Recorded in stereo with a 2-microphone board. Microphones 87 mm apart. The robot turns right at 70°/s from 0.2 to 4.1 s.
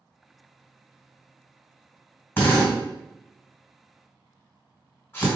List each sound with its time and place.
2.4 s a drill: 25° left (ahead or behind), 1.9 m